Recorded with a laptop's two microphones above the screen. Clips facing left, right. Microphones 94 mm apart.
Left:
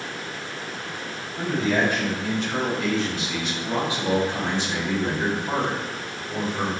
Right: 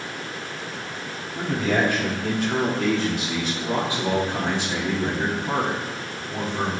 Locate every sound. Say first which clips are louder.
1.4 s a man speaking: even; 65° right (ahead or behind), 2.5 m; by 6.7 s centre (ahead or behind), 3 m